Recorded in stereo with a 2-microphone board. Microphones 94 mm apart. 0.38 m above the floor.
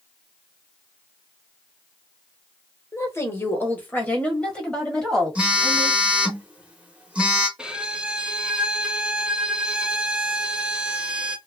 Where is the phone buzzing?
15° right (ahead or behind), 1.4 m.